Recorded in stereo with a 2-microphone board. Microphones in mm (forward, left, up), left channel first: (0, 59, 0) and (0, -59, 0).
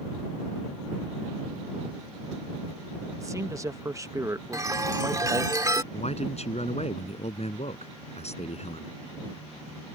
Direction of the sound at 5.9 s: 65° left (ahead or behind).